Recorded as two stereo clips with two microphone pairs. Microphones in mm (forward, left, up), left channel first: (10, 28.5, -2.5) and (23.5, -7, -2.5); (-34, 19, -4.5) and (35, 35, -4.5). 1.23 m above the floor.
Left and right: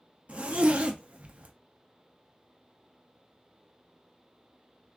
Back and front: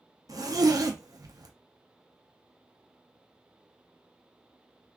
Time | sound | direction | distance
0.3 | a zipper | 15° right | 0.5 m